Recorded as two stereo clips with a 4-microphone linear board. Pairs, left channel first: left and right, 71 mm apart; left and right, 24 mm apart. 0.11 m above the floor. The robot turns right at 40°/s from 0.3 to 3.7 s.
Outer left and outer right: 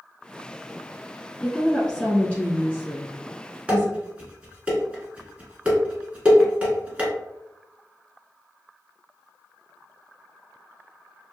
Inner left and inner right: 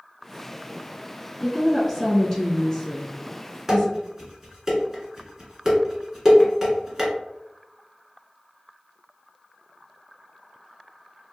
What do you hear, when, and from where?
1.4 s a woman speaking: centre (ahead or behind), 1.0 m; by 3.9 s 20° left (ahead or behind), 1.0 m
3.7 s dishes clattering: 20° right (ahead or behind), 0.9 m